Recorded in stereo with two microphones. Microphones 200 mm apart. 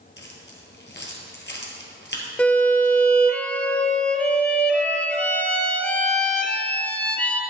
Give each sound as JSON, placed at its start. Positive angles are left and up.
{"t": 0.2, "sound": "keys jangling", "side_deg": 55, "distance_m": 1.7}
{"t": 2.4, "sound": "a violin", "side_deg": 5, "distance_m": 0.8}